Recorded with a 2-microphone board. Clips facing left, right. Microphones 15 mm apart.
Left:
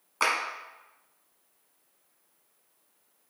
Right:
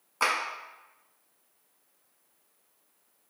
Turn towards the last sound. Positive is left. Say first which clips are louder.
# left 1 dB
turn(degrees=15)  # may be behind; listen again after turning